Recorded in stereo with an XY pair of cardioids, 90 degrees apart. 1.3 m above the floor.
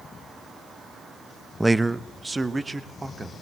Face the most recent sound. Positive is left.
turn(degrees=-25)